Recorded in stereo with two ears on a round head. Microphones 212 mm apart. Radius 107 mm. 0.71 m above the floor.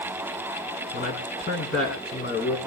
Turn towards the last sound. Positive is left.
turn(degrees=40)  # may be behind; listen again after turning